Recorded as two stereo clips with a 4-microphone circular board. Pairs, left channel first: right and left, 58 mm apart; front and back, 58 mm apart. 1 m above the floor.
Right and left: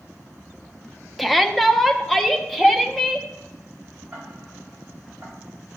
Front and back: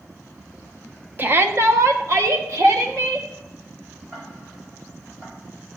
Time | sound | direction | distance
1.2 | a shout | 175° right | 0.6 m
4.1 | ticking | 155° left | 4 m